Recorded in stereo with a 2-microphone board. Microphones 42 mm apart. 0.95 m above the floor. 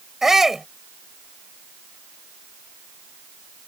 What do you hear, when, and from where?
0.2 s a shout: 10° right (ahead or behind)